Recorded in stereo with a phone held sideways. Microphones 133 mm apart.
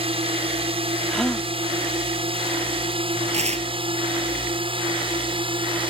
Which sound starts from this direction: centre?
A gasp, at 1.1 s.